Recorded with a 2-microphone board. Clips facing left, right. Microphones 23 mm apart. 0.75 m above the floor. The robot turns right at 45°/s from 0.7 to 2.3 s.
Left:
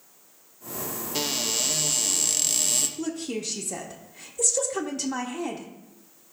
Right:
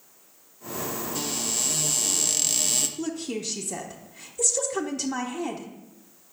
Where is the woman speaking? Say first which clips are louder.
Even; 5° left (ahead or behind), 0.7 m.